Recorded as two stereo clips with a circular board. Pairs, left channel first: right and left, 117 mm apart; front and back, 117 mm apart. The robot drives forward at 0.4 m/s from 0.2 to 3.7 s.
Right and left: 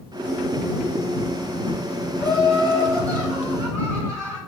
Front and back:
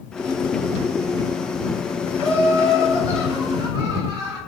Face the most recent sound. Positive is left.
turn(degrees=145)